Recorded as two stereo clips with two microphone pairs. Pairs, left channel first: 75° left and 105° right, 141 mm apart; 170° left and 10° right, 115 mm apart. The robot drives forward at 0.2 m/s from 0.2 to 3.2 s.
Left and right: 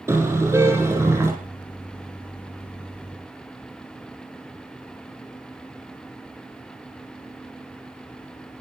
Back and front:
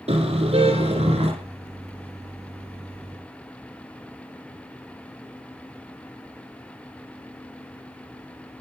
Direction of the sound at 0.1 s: 35° right.